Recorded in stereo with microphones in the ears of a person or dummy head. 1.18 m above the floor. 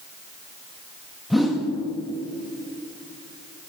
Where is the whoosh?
5° right (ahead or behind), 0.8 m.